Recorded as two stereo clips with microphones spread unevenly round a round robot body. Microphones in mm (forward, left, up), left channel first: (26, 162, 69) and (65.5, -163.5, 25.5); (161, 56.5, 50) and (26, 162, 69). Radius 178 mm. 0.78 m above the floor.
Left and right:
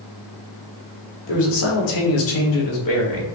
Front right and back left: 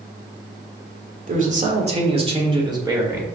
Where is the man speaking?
110° left, 1.6 m; by 3.3 s 70° left, 2 m.